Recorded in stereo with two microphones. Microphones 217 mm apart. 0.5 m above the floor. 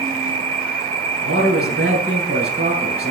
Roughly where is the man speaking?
Right.